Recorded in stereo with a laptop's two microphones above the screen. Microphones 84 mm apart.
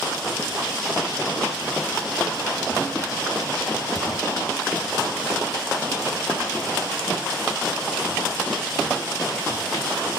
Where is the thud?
85° left, 5.5 m.